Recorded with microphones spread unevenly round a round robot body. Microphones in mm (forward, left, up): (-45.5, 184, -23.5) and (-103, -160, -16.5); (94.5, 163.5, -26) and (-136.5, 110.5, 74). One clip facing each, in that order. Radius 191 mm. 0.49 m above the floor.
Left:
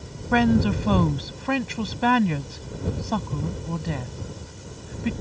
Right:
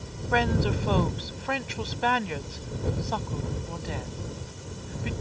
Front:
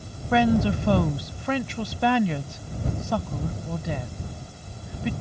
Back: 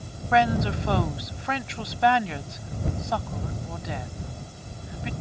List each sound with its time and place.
0.3 s a woman speaking: 60° left